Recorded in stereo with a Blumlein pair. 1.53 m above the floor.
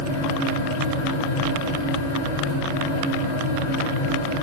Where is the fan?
65° left, 0.7 m.